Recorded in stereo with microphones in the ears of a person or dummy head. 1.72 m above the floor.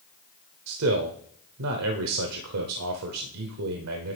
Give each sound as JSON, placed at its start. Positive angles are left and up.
{"t": 0.7, "sound": "a man speaking", "side_deg": -80, "distance_m": 0.8}